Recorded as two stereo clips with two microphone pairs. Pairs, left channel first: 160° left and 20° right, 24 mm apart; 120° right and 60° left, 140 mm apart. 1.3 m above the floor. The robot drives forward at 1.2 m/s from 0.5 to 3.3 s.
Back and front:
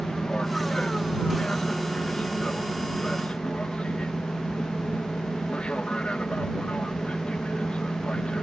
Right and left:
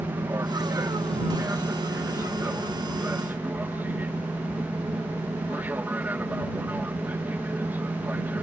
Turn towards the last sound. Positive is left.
turn(degrees=135)